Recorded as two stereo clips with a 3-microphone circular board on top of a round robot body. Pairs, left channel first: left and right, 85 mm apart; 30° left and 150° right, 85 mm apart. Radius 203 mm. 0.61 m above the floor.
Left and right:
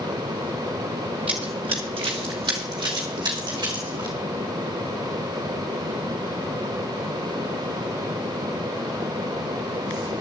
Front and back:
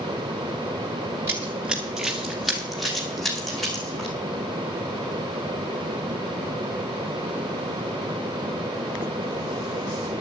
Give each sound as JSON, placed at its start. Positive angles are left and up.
{"t": 1.3, "sound": "running footsteps", "azimuth_deg": -95, "distance_m": 0.7}